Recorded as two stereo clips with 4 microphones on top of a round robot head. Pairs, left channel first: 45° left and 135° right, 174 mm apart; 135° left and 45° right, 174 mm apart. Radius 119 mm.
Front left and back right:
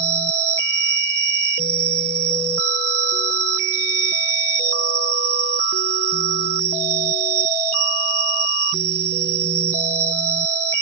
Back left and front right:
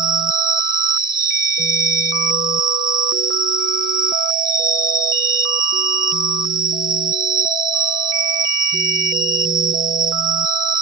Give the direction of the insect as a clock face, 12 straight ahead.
4 o'clock.